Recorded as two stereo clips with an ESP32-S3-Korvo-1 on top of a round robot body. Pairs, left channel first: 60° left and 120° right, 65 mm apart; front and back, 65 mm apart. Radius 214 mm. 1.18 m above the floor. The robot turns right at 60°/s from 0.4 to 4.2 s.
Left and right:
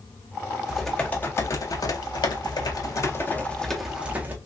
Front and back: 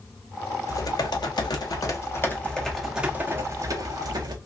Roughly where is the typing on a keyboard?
Ahead right.